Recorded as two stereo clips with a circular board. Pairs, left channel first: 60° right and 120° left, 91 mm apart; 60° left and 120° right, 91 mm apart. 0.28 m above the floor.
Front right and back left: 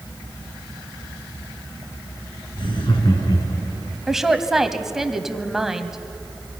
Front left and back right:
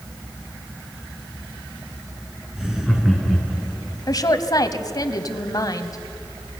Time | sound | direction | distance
2.6 | laughter | 35° right | 4 m
4.1 | a woman speaking | 35° left | 1.3 m